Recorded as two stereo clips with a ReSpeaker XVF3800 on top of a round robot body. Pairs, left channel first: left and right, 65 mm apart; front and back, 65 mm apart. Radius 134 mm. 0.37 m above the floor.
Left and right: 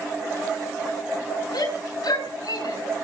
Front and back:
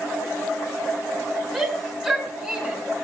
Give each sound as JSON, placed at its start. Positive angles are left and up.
{"t": 1.5, "sound": "a shout", "azimuth_deg": 90, "distance_m": 6.5}